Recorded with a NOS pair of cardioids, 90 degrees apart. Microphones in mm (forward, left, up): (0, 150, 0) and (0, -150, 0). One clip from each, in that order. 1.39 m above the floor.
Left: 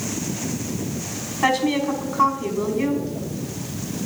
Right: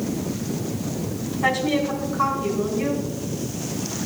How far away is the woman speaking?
About 4.5 m.